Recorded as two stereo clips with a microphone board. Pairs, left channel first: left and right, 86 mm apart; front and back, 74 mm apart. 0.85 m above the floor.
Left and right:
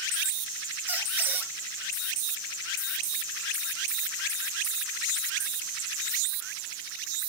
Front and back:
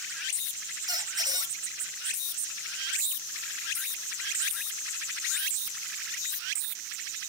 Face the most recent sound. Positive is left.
turn(degrees=-160)